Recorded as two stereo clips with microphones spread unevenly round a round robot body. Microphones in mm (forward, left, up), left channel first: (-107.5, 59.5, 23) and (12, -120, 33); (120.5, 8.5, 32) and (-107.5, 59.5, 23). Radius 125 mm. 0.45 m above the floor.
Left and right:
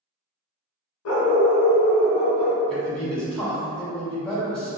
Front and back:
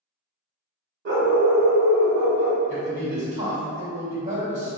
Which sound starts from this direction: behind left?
A dog barking, at 1.1 s.